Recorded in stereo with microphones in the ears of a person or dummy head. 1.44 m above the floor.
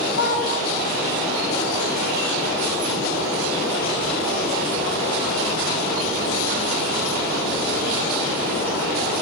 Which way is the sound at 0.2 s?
60° left (ahead or behind).